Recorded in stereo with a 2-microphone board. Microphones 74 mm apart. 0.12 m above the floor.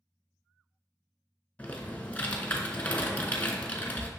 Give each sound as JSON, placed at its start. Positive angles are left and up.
{"t": 1.6, "sound": "typing on a keyboard", "side_deg": 25, "distance_m": 0.8}